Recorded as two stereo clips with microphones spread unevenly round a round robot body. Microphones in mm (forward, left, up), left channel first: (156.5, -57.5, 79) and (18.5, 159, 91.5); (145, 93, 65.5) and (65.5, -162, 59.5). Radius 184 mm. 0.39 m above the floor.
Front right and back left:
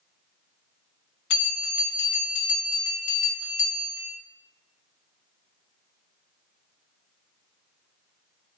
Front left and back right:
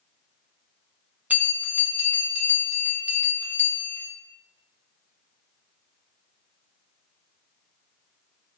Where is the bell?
25° right, 1.1 m.